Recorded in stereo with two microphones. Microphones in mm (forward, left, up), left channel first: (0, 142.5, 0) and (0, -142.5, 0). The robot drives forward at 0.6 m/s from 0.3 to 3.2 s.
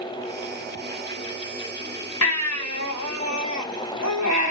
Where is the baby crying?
65° left (ahead or behind), 2 m; by 4.5 s 75° left (ahead or behind), 2 m.